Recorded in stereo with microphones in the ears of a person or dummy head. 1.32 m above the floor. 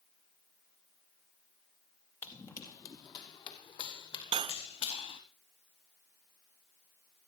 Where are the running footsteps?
10° left (ahead or behind), 1.9 m; by 5.2 s 35° left (ahead or behind), 3.5 m.